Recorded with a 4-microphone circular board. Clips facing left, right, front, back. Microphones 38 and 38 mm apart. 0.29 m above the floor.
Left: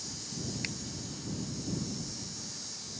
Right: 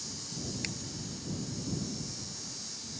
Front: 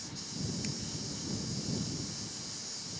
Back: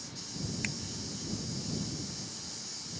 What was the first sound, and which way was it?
A finger snap, 170° left.